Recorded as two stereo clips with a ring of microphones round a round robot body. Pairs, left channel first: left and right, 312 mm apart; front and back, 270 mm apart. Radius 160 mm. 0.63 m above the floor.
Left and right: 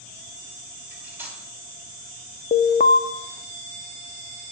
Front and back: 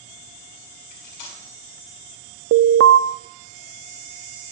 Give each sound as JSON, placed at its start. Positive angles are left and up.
{"t": 0.9, "sound": "cutlery clinking", "azimuth_deg": -5, "distance_m": 3.0}
{"t": 2.5, "sound": "an alarm", "azimuth_deg": 150, "distance_m": 0.7}